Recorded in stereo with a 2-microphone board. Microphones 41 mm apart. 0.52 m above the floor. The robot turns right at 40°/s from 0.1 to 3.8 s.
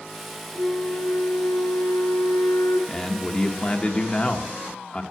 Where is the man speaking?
30° left, 0.8 m; by 5.0 s 65° left, 0.8 m.